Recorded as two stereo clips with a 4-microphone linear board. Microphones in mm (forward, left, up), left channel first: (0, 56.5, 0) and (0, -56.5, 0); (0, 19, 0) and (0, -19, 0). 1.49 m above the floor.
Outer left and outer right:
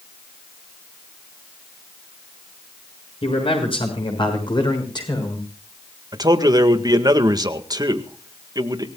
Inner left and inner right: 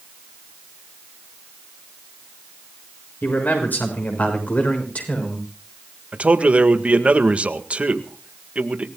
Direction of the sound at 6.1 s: 35° right (ahead or behind).